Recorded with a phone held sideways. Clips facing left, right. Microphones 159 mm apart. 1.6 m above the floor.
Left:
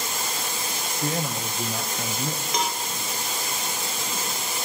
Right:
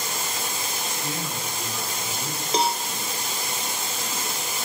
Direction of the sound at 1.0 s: 50° left (ahead or behind).